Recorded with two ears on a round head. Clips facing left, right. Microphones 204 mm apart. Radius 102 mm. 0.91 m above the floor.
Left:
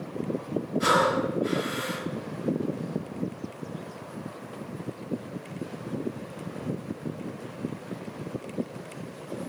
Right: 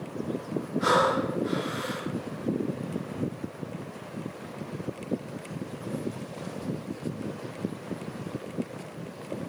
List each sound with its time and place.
0.8 s breathing: 50° left (ahead or behind), 9 m